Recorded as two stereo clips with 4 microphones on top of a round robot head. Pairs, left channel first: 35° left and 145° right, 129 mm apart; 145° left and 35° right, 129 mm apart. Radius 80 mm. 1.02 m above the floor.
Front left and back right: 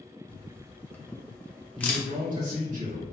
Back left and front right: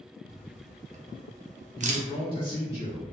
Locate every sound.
0.3 s a camera shutter: 40° right, 0.6 m
1.8 s a man speaking: 165° right, 1.7 m